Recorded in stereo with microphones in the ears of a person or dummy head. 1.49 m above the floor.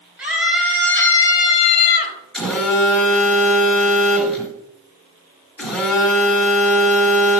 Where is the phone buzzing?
Centre (ahead or behind), 1.9 m.